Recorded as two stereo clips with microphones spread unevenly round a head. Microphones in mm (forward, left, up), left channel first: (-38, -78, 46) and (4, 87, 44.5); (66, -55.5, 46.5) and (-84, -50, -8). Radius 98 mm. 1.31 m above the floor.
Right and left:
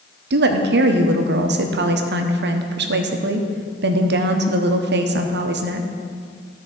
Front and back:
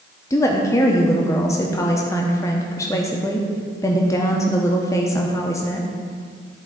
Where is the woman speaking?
80° left, 0.8 m.